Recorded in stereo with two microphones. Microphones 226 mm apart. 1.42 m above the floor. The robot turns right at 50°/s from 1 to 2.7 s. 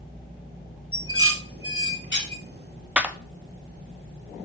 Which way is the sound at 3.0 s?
5° right (ahead or behind).